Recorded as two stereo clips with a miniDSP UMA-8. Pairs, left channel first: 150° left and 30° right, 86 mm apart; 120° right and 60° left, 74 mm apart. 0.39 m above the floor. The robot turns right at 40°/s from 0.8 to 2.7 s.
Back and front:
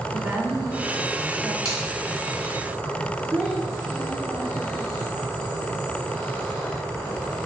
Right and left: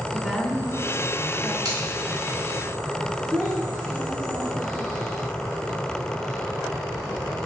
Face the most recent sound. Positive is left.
turn(degrees=15)